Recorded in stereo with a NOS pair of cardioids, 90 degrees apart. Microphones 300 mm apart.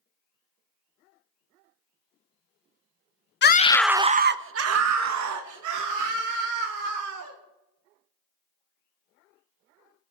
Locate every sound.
3.4 s a scream: 35° left, 0.9 m; by 7.3 s 75° right, 4.5 m